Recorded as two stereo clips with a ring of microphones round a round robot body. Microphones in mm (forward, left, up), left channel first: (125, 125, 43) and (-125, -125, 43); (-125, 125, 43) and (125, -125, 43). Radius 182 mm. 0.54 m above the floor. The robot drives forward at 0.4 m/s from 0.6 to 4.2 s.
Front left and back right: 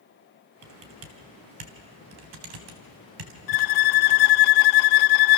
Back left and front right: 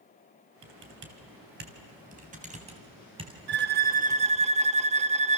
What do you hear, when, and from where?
0.6 s typing on a keyboard: 100° right, 2.5 m; by 4.5 s 125° right, 3 m
3.5 s a violin: 15° left, 0.7 m; by 5.4 s 25° left, 0.5 m